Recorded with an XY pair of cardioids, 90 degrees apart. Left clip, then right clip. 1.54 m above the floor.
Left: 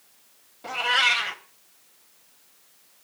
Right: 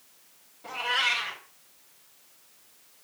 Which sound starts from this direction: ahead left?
A cat meowing, at 0.6 s.